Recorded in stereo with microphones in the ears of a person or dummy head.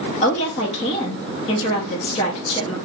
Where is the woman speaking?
35° left (ahead or behind), 0.6 m.